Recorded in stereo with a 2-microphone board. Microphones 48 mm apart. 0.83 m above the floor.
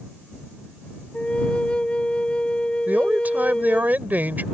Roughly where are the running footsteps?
No running footsteps in this recording.